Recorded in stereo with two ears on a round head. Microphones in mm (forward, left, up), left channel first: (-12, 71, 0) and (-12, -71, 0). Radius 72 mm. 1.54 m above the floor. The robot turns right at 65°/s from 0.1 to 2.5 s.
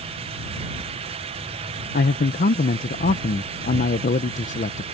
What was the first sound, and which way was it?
A man speaking, 80° left.